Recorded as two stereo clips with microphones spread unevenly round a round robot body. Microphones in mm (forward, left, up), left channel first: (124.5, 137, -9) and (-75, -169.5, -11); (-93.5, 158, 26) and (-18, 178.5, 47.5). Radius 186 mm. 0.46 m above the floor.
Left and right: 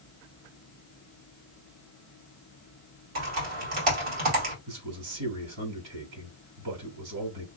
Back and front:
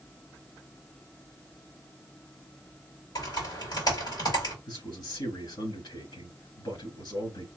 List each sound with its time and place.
3.1 s typing on a keyboard: 150° right, 2 m
4.7 s a man speaking: 155° right, 3.5 m